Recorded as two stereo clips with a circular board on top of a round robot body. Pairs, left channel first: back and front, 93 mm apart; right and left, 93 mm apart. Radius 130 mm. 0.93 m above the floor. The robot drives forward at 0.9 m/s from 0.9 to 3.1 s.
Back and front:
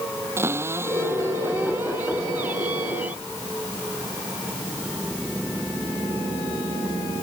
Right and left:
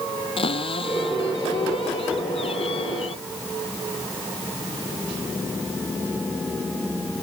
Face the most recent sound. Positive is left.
turn(degrees=-75)